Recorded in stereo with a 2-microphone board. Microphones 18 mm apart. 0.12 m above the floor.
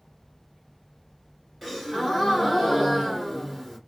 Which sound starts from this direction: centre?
A gasp, at 1.6 s.